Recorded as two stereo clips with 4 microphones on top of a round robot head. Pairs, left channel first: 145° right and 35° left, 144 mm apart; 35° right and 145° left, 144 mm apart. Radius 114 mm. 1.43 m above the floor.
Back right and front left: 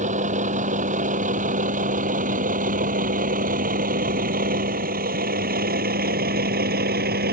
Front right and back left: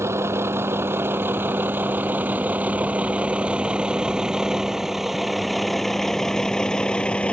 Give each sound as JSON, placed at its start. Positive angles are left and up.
{"t": 0.0, "sound": "a vehicle", "azimuth_deg": 75}